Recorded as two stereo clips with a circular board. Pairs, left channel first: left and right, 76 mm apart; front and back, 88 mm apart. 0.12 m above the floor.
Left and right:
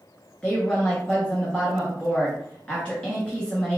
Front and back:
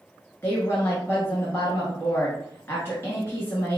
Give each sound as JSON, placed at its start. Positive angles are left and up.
{"t": 0.4, "sound": "a woman speaking", "azimuth_deg": 30, "distance_m": 1.3}